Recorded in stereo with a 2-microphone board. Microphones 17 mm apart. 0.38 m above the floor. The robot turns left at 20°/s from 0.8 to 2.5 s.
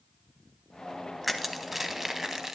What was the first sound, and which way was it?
Crushing, centre (ahead or behind).